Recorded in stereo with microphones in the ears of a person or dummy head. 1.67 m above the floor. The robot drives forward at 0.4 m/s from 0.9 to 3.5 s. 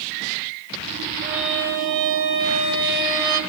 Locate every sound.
1.2 s a violin: 60° right (ahead or behind), 1.5 m; by 3.4 s 65° right (ahead or behind), 1.4 m